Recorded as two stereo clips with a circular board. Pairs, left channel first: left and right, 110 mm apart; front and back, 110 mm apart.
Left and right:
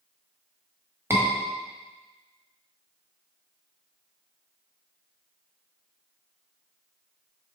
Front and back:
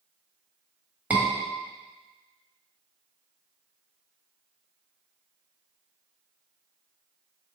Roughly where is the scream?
Behind right.